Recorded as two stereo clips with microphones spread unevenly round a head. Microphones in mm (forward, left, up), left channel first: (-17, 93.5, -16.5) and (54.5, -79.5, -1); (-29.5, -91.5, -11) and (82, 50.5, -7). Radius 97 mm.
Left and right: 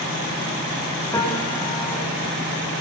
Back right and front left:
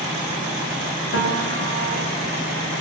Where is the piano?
170° right, 7 m.